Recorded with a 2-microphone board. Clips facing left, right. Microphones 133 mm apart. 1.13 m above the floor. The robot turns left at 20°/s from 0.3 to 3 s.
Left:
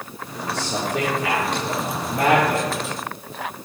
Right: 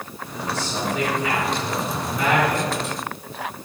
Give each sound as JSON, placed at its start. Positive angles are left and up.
{"t": 0.5, "sound": "a man speaking", "azimuth_deg": 90, "distance_m": 4.0}